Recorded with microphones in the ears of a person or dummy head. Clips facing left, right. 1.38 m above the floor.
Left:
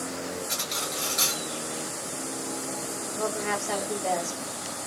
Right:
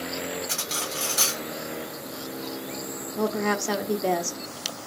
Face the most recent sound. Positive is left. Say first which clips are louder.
# right 5 dB
turn(degrees=-70)  # may be behind; listen again after turning